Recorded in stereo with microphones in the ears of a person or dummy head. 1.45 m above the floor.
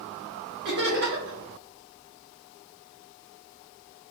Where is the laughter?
50° right (ahead or behind), 1.2 m.